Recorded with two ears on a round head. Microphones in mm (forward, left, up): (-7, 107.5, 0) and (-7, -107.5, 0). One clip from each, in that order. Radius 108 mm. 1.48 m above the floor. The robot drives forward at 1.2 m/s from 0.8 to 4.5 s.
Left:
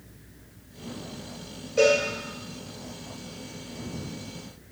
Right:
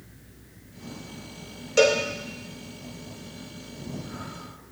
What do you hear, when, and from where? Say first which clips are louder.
1.8 s a cowbell: right 1 dB; 65° right (ahead or behind), 2.5 m; by 2.0 s 70° right (ahead or behind), 2.5 m